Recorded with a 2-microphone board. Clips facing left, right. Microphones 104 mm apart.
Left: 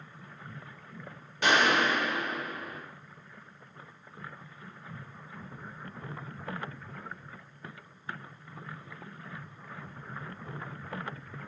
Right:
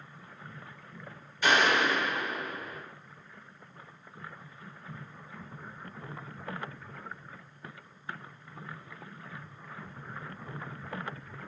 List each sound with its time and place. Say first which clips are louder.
1.4 s a gunshot: even; 80° left, 1.5 m